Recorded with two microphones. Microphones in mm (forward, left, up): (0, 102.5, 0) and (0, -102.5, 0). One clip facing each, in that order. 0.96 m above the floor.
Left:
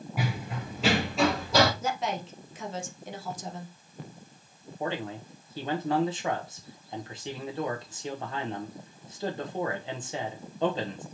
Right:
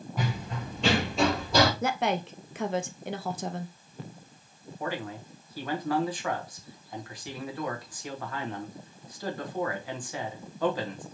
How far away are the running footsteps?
About 1.0 m.